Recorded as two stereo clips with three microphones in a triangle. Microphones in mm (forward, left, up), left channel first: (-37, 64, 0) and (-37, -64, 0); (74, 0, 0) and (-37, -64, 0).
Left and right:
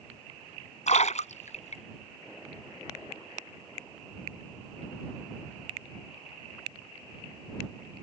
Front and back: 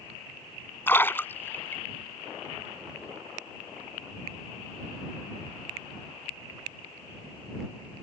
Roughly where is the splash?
Left.